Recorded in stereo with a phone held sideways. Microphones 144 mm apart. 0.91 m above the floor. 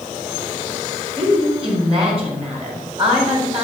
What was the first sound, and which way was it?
A woman speaking, 40° right (ahead or behind).